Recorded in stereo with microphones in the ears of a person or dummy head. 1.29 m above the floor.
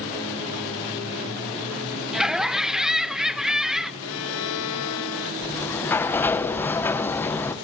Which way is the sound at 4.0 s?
75° left (ahead or behind).